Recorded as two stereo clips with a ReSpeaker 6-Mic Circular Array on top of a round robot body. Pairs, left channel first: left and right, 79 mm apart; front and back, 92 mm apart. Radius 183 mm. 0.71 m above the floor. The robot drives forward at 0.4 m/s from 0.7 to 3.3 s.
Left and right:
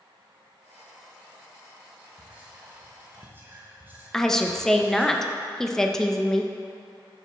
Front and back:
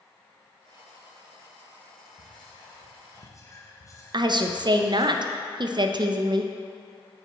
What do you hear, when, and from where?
2.2 s whispering: 20° right, 1.1 m; by 5.1 s 35° right, 0.8 m
4.1 s a woman speaking: 170° left, 0.6 m